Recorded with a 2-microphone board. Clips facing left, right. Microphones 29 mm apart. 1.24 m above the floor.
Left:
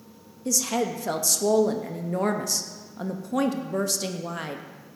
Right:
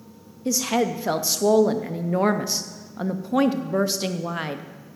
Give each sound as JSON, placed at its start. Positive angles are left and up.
{"t": 0.5, "sound": "a woman speaking", "side_deg": -25, "distance_m": 0.6}